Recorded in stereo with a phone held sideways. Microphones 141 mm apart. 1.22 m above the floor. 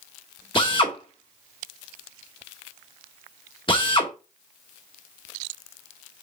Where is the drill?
35° left (ahead or behind), 1.8 m.